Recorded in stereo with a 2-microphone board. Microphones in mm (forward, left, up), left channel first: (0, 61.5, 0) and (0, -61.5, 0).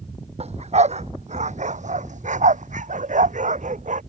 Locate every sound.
0.4 s a dog barking: 60° right (ahead or behind); by 4.0 s 85° right